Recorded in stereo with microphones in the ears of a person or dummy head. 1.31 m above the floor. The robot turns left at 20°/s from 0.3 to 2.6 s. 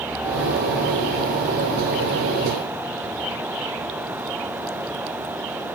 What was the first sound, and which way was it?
Only background noise.